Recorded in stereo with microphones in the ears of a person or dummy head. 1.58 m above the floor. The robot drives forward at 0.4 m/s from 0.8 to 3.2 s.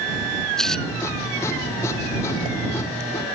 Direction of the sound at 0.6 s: 5° left (ahead or behind).